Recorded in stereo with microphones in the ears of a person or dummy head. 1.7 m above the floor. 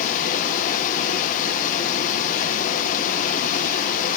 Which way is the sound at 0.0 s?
40° left (ahead or behind).